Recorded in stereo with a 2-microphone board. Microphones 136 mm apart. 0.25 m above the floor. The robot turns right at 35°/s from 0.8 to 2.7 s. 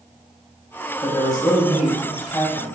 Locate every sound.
1.0 s a man speaking: 30° left (ahead or behind), 1.3 m; by 2.8 s 15° left (ahead or behind), 1.3 m